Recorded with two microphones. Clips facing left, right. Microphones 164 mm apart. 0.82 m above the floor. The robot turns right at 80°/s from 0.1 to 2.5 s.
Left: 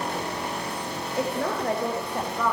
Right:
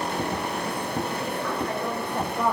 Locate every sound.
1.2 s a woman speaking: 95° left, 4 m; by 2.5 s 160° right, 4 m